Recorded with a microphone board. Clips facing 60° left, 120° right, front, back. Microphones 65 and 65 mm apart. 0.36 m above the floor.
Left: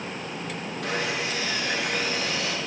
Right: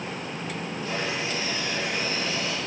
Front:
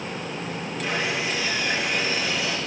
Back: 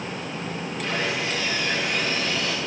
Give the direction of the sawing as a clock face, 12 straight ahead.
9 o'clock.